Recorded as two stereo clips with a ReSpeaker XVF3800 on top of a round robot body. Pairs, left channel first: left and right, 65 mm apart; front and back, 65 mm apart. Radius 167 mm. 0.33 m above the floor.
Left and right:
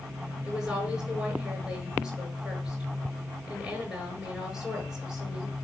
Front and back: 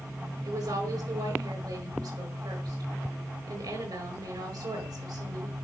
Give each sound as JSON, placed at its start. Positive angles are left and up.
{"t": 0.4, "sound": "a woman speaking", "azimuth_deg": -170, "distance_m": 7.5}